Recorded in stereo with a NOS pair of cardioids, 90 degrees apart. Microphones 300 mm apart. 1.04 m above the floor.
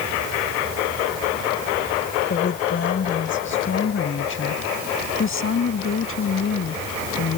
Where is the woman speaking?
35° left; by 7.4 s 45° left.